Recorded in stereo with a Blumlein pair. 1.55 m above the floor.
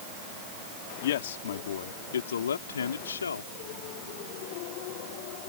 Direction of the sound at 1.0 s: 55° left.